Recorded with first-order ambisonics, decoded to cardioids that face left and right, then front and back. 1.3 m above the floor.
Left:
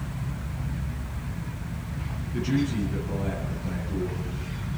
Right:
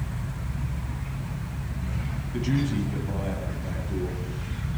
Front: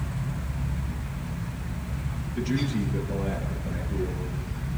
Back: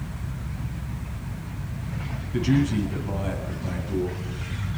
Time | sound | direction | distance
2.3 | a man speaking | 160° right | 9.5 m